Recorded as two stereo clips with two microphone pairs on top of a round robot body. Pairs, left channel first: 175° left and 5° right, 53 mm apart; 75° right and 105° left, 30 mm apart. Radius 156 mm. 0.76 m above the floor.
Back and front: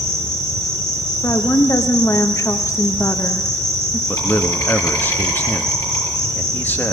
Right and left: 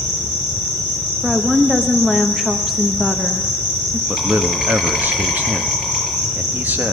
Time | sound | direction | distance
0.0 | an insect | 175° left | 5.5 m
1.2 | a woman speaking | 165° right | 1.0 m
4.1 | a man speaking | 120° left | 1.3 m